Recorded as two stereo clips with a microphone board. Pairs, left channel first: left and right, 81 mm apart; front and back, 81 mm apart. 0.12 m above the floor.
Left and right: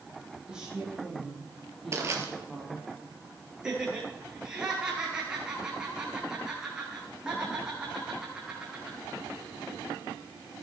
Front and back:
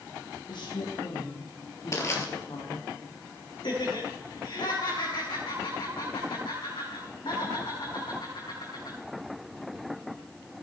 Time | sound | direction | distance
0.5 | a woman speaking | 10° right | 5.5 m
1.9 | crushing | 45° right | 3 m
3.6 | laughter | 10° right | 7.5 m